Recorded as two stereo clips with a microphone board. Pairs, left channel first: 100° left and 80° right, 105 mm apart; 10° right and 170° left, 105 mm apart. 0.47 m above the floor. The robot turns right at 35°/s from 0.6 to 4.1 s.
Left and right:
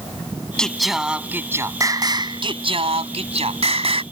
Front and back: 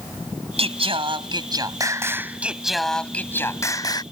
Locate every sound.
0.6 s singing: 175° right; by 4.0 s 55° right